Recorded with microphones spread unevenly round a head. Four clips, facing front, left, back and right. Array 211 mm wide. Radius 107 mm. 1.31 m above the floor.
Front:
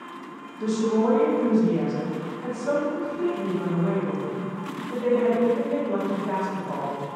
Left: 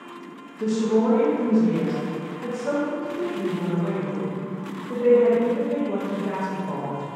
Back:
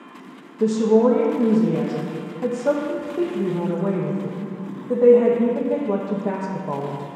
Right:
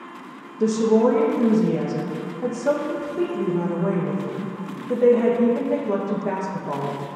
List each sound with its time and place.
0.6 s a woman speaking: 155° right, 1.5 m